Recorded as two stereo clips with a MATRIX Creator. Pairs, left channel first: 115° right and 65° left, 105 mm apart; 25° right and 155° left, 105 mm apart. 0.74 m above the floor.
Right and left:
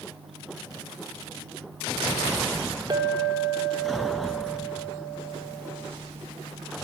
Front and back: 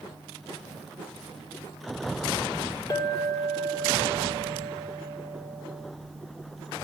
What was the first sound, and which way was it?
A clink, 20° left.